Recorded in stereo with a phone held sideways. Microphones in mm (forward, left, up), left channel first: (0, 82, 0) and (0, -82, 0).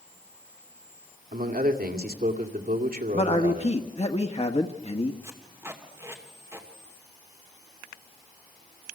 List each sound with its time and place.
1.3 s a man speaking: 60° right (ahead or behind), 2.5 m
3.1 s a man speaking: 40° left (ahead or behind), 1.3 m
5.2 s tape being pulled: 15° right (ahead or behind), 2.5 m